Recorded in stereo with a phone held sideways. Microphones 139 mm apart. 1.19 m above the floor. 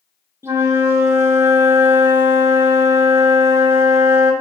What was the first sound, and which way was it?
A flute, 20° right (ahead or behind).